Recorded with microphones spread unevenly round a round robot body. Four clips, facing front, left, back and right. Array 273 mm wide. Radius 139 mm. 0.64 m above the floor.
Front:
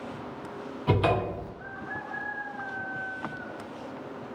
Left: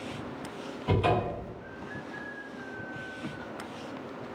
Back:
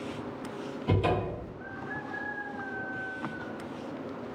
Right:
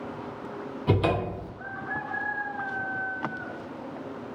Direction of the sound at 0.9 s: 80° right.